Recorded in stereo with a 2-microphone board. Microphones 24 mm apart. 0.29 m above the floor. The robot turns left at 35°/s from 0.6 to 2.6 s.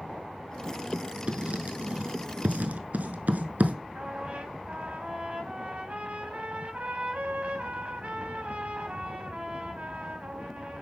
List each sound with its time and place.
1.3 s writing: 40° right (ahead or behind), 0.7 m; by 3.8 s 85° right, 0.7 m
4.0 s a trumpet: 50° right (ahead or behind), 1.0 m